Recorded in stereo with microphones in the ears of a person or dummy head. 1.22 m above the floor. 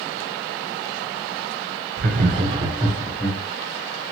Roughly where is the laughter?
Right.